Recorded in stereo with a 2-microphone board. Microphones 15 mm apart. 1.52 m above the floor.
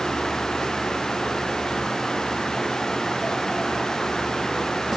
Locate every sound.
Only background noise.